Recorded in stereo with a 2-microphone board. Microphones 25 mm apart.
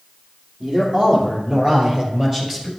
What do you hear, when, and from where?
0.6 s a man speaking: 45° right (ahead or behind), 3.5 m; by 2.7 s 10° right (ahead or behind), 2 m